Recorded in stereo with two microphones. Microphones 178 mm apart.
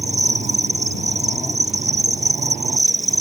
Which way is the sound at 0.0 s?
40° right (ahead or behind).